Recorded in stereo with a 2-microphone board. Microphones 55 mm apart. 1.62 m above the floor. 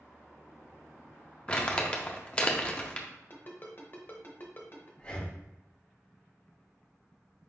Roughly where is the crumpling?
Left.